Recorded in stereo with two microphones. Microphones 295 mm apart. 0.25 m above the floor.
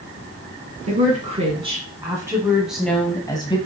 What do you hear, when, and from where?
0.9 s a woman speaking: 25° right (ahead or behind), 2.5 m; by 3.6 s 20° left (ahead or behind), 1.5 m